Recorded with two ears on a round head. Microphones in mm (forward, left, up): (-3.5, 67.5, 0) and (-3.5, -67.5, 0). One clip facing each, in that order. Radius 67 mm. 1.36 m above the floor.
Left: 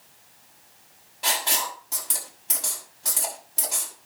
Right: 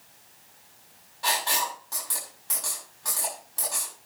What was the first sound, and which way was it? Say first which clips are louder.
Writing: right 1 dB; 25° left (ahead or behind).